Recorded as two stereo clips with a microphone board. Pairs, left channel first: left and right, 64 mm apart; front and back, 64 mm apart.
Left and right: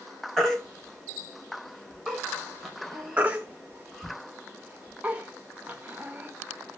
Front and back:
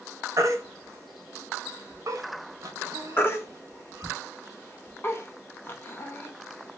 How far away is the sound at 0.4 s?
About 0.7 m.